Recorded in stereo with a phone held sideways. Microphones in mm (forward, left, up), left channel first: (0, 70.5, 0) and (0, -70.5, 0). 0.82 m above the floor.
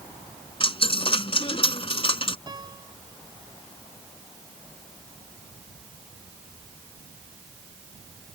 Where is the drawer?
I don't hear a drawer.